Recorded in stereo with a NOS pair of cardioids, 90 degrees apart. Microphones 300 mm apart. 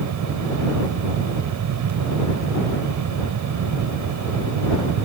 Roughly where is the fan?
Ahead right.